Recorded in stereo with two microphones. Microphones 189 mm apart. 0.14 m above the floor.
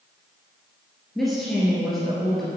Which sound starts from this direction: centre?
A woman speaking, at 1.1 s.